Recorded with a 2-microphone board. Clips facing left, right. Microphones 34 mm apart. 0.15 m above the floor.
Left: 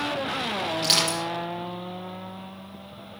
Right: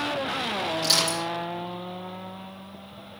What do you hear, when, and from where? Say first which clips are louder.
0.8 s crushing: left 1 dB; 45° left (ahead or behind), 5.5 m